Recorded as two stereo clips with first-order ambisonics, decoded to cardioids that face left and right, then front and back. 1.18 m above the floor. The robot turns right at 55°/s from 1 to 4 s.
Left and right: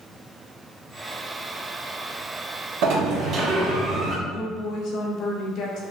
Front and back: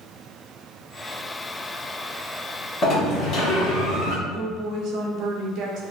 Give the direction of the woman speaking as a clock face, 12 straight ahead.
8 o'clock.